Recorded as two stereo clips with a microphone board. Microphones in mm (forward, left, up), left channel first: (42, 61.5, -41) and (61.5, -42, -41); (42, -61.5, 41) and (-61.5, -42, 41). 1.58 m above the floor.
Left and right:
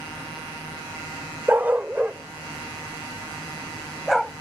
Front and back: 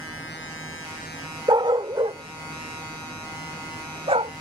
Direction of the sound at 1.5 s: 150° right.